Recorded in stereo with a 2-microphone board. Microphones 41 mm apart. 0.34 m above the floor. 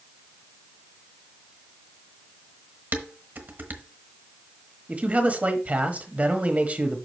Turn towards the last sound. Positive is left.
turn(degrees=-35)  # may be behind; listen again after turning